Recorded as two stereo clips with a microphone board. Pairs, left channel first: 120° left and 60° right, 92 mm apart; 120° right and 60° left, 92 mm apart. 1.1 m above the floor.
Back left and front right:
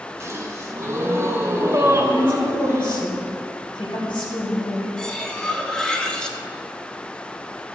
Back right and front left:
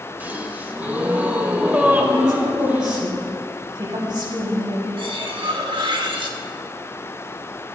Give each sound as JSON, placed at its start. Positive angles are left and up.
{"t": 0.2, "sound": "a gasp", "azimuth_deg": -10, "distance_m": 1.3}
{"t": 2.0, "sound": "a woman speaking", "azimuth_deg": 95, "distance_m": 4.5}
{"t": 5.0, "sound": "cutlery clinking", "azimuth_deg": 40, "distance_m": 1.1}